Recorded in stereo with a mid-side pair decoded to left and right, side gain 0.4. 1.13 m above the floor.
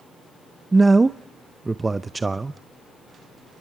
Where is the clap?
I don't hear a clap.